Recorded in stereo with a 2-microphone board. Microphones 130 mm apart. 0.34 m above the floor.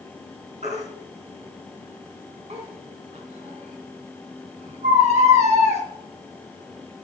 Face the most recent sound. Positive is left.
turn(degrees=-60)  # may be behind; listen again after turning